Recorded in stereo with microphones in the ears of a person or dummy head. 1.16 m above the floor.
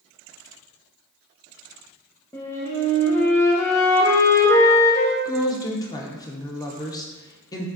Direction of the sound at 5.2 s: 20° left (ahead or behind).